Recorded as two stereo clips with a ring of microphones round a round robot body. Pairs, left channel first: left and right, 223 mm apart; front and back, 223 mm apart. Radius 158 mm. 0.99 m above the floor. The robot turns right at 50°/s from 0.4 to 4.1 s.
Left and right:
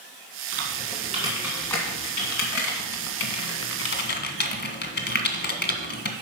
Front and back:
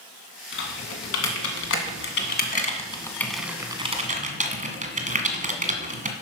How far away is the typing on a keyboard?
About 1.8 m.